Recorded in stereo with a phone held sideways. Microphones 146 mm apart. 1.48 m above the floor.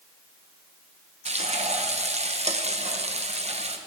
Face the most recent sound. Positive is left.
turn(degrees=-45)  # may be behind; listen again after turning